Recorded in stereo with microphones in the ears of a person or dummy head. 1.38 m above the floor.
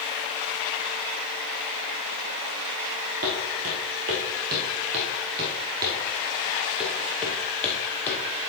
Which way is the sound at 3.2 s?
40° right (ahead or behind).